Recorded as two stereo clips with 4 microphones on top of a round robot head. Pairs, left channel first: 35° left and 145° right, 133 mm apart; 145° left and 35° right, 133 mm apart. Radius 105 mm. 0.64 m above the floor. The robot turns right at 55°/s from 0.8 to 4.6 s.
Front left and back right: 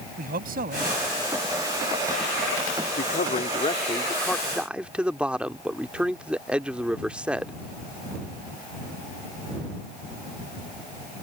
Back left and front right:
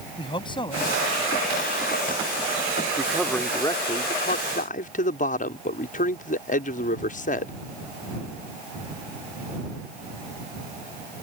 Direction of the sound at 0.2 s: 160° right.